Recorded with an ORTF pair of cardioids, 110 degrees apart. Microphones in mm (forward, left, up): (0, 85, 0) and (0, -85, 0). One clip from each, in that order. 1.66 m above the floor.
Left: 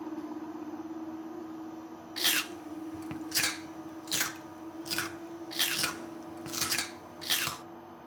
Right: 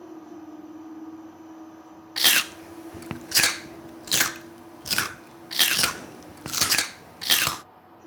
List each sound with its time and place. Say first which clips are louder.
2.2 s chewing: right 9 dB; 45° right, 0.5 m